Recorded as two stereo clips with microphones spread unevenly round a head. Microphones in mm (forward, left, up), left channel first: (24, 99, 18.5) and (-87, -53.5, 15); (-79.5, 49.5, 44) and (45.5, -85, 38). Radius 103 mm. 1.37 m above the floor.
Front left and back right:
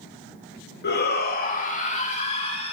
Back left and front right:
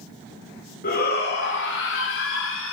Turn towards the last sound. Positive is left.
turn(degrees=115)